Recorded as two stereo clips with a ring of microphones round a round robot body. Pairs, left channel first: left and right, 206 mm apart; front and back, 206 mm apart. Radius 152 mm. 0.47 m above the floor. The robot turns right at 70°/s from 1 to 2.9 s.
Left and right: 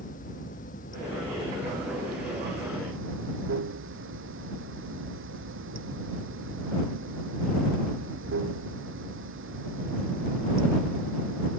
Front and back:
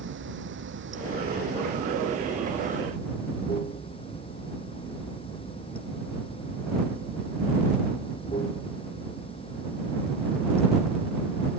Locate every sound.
0.0 s running water: 155° left; by 11.6 s 75° right